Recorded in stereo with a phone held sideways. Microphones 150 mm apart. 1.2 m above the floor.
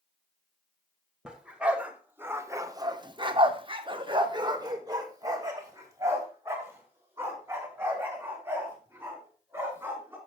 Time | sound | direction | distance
1.2 | a dog barking | 5° right (ahead or behind) | 1.9 m